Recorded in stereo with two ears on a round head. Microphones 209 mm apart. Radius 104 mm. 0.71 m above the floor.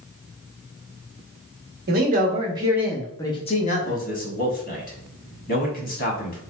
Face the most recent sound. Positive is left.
turn(degrees=40)  # may be behind; listen again after turning